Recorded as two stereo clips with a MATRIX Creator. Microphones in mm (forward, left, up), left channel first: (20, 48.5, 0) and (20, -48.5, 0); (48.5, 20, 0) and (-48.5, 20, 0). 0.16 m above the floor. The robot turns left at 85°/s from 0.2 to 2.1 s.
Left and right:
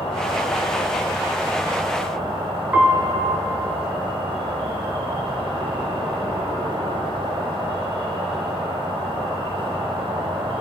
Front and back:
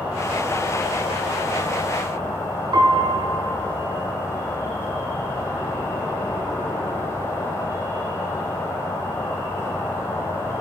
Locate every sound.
0.0 s an insect: 105° left, 1.6 m; by 10.6 s 60° right, 1.6 m
2.7 s a piano: 160° right, 0.7 m